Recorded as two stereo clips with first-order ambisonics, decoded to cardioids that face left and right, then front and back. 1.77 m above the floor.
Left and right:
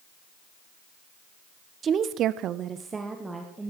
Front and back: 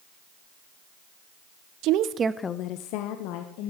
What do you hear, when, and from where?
1.8 s a woman speaking: 155° right, 1.0 m; by 3.7 s 5° right, 2 m